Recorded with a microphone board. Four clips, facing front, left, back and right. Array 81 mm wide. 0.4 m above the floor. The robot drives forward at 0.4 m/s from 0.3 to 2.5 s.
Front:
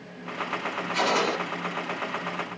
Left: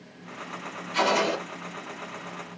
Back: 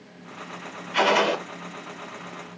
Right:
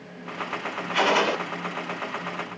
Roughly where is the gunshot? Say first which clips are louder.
Right 2 dB, back 5 dB; behind right.